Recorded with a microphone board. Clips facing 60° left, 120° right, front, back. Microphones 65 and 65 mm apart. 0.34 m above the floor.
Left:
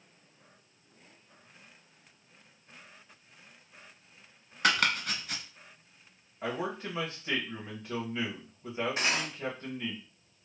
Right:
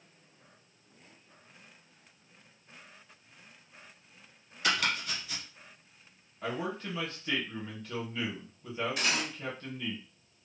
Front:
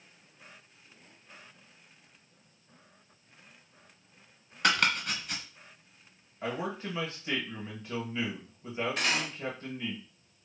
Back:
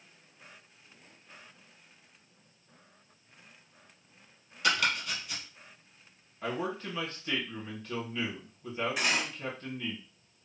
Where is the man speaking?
40° left, 1.2 m.